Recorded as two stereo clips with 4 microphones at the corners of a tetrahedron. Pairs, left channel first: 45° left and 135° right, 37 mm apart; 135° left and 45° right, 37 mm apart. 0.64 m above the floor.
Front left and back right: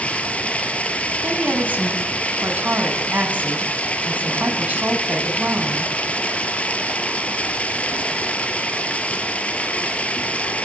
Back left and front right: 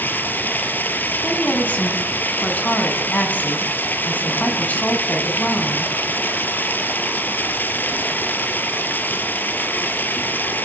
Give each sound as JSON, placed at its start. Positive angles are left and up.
{"t": 0.0, "sound": "running water", "azimuth_deg": 100, "distance_m": 4.0}
{"t": 1.2, "sound": "a woman speaking", "azimuth_deg": 180, "distance_m": 7.0}